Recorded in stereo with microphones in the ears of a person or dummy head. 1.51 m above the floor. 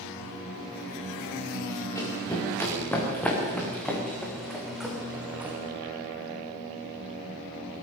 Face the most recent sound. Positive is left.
turn(degrees=-10)  # may be behind; listen again after turning